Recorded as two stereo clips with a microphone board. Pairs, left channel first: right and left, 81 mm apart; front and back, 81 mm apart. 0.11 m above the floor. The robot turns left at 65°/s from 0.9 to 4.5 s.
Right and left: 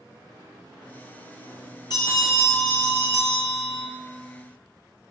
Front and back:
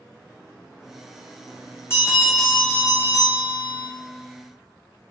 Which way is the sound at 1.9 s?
55° right.